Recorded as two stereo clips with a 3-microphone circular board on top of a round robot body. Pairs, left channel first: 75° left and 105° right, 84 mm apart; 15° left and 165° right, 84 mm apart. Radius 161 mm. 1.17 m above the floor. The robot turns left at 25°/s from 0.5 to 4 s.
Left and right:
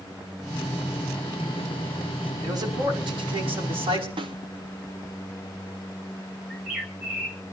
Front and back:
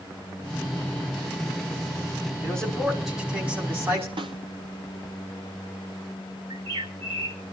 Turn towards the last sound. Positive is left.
turn(degrees=175)